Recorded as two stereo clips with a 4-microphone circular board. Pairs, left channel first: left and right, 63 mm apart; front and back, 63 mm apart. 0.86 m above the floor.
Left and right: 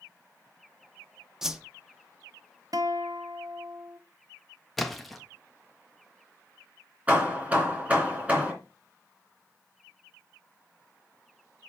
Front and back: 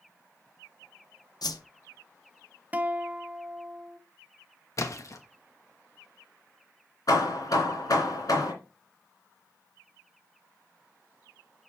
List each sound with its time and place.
1.4 s a whoosh: 5° right, 0.8 m
2.7 s a guitar: 115° right, 0.6 m
4.8 s a splash: straight ahead, 1.0 m
7.1 s hammering: 20° right, 3 m